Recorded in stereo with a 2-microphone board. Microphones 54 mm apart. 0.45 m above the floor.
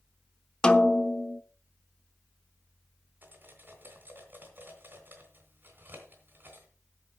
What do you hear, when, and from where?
0.6 s a snare drum: 15° left (ahead or behind), 0.7 m
3.2 s cutlery clinking: 40° right (ahead or behind), 2.5 m